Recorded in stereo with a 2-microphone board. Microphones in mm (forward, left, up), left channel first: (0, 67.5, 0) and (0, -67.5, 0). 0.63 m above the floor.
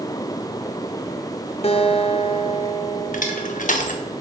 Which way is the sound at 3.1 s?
70° left (ahead or behind).